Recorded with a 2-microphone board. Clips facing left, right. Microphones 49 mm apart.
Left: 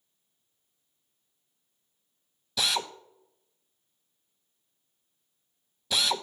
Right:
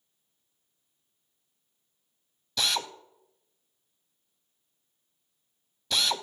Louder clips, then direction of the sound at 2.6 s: Even; 5° left (ahead or behind).